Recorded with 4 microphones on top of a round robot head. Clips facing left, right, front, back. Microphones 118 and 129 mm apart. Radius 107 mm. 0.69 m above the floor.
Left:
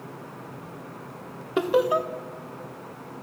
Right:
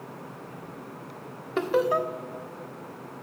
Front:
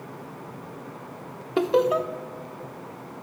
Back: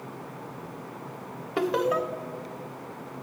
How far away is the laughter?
About 1.2 m.